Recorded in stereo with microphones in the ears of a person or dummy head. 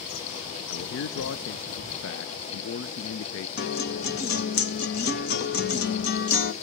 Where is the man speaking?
70° left (ahead or behind), 0.6 m.